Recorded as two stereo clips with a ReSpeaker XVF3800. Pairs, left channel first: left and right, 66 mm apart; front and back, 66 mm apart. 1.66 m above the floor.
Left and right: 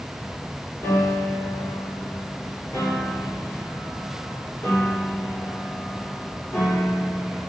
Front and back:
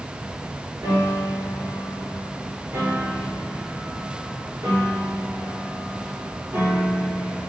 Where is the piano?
125° left, 4.5 m.